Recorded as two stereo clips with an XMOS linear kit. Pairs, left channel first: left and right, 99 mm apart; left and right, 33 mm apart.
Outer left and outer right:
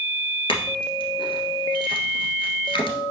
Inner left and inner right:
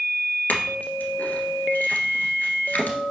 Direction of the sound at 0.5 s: 60° left (ahead or behind).